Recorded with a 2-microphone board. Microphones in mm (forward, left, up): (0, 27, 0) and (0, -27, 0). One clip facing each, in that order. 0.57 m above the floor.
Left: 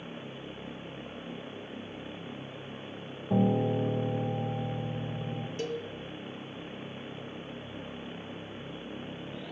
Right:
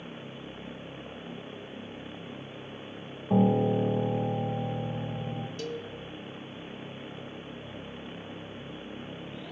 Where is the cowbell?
35° left (ahead or behind), 0.6 m.